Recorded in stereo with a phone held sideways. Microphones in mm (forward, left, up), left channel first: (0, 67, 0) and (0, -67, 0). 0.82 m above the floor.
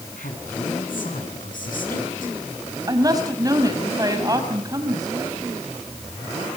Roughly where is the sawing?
I don't hear sawing.